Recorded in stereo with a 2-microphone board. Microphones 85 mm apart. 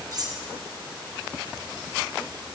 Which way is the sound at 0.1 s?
45° right (ahead or behind).